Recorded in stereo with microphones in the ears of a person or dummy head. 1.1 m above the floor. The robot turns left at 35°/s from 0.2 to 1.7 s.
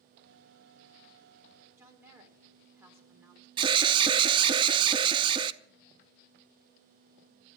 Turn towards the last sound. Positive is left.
turn(degrees=-20)  # may be behind; listen again after turning